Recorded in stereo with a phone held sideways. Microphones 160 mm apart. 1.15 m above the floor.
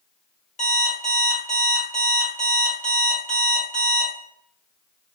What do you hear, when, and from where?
0.6 s an alarm clock: 50° left (ahead or behind), 0.9 m